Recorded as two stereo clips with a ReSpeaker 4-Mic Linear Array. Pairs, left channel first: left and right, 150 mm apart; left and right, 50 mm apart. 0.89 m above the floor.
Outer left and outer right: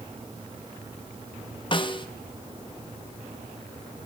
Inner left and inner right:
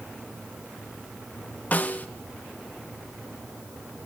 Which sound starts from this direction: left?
A snare drum, at 1.7 s.